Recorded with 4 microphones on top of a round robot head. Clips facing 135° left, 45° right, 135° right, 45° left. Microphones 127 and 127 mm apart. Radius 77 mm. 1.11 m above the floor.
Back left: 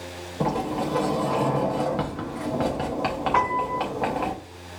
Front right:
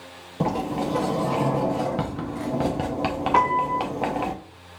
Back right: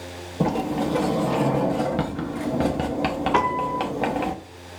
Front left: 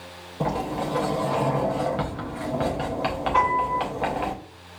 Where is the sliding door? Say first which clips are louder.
Even, back right 3 dB; 110° right, 0.5 m.